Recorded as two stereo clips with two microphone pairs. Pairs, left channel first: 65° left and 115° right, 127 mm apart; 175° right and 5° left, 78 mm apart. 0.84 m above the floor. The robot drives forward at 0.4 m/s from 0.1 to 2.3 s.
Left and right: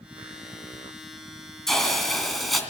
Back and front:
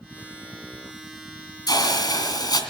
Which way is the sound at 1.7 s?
155° left.